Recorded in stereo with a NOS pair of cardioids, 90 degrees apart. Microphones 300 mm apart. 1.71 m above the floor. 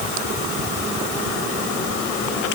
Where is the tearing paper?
No tearing paper in this recording.